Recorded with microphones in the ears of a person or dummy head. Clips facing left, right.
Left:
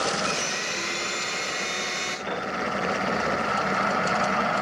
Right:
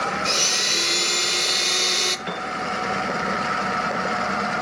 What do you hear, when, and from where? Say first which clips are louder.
0.2 s a blender: right 2 dB; 60° right (ahead or behind), 1.4 m
2.3 s a piano: even; 10° right (ahead or behind), 5.5 m